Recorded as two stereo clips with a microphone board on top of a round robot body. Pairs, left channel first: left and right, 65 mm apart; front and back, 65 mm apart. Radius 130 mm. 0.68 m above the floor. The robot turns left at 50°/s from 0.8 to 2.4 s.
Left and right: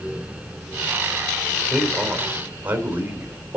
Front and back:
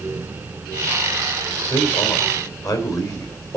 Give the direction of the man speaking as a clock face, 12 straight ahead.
12 o'clock.